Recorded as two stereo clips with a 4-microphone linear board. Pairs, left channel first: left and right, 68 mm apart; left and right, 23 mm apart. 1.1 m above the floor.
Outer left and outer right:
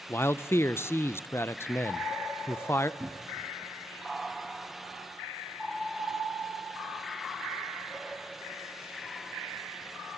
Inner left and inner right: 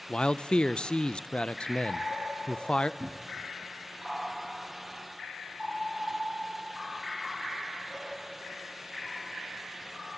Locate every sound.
0.1 s a man speaking: 40° left (ahead or behind), 0.6 m
3.0 s a cupboard door: 15° right (ahead or behind), 1.0 m